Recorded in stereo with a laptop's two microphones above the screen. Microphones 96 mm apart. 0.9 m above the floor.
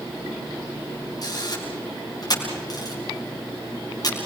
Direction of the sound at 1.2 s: 40° left (ahead or behind).